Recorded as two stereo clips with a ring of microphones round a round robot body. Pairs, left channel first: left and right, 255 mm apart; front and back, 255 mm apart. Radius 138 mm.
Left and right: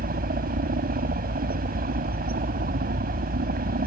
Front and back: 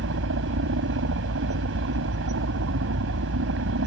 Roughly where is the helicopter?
Behind right.